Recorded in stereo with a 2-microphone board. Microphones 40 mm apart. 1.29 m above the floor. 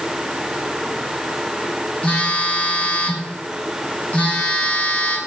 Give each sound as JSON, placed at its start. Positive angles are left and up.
{"t": 2.0, "sound": "a phone buzzing", "side_deg": 35, "distance_m": 1.2}